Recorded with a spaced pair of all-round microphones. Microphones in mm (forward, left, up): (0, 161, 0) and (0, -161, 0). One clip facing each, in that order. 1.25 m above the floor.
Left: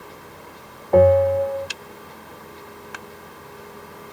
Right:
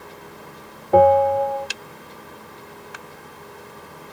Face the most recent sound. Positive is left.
turn(degrees=-10)  # may be behind; listen again after turning